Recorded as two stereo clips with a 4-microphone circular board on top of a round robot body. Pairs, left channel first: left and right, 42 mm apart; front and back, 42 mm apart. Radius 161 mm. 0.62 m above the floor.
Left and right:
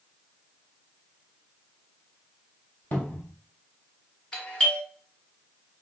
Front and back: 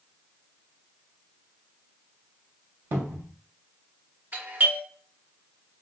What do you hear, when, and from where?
2.9 s a cupboard door: 145° left, 1.1 m
4.3 s a doorbell: 155° left, 1.9 m